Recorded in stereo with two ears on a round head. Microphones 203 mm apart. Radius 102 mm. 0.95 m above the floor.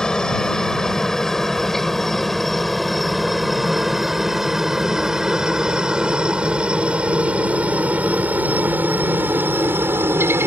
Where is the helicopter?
5° left (ahead or behind); by 10.5 s 10° right (ahead or behind).